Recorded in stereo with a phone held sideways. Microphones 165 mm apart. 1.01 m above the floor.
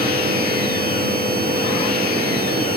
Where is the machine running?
70° right (ahead or behind), 1.0 m.